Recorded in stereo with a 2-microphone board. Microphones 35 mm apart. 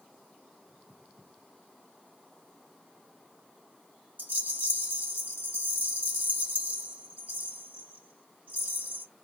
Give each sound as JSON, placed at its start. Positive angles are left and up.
{"t": 4.2, "sound": "a rattle", "side_deg": -55, "distance_m": 1.5}